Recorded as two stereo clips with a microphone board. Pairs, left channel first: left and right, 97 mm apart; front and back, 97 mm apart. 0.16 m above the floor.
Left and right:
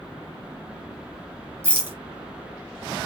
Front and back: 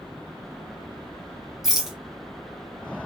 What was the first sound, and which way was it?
A rattle, 100° right.